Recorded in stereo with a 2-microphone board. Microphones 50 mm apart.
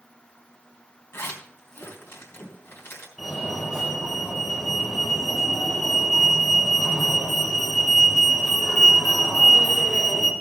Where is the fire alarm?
Centre (ahead or behind), 4.5 m.